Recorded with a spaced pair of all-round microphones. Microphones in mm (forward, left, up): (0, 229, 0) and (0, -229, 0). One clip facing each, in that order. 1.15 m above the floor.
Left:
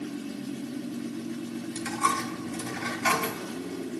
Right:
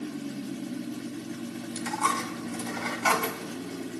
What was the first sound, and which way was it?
A dropped coin, 35° left (ahead or behind).